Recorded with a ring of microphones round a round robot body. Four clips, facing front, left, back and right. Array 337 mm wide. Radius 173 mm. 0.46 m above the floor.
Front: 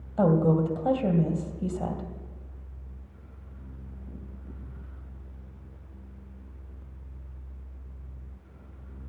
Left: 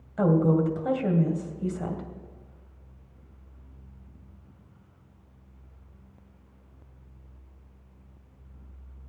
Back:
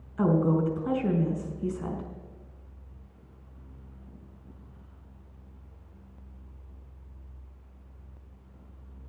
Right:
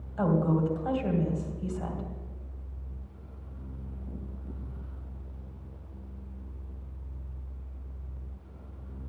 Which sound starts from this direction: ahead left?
A woman speaking, at 0.2 s.